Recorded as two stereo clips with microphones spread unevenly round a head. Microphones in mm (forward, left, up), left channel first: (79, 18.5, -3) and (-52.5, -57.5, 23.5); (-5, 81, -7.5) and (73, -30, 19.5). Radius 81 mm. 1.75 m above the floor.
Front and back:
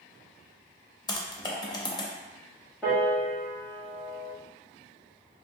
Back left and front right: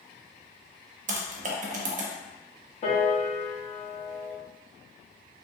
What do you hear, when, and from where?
1.1 s typing on a keyboard: 40° right, 0.5 m
2.8 s a piano: 120° left, 0.9 m